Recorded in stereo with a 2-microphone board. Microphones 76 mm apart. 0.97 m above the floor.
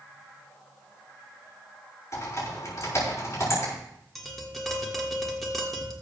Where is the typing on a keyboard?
45° left (ahead or behind), 5 m.